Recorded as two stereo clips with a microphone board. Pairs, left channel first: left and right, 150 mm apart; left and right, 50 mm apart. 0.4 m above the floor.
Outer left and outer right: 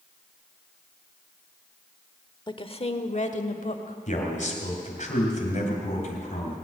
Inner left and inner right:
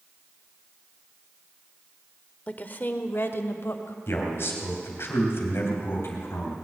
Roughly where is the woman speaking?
Left.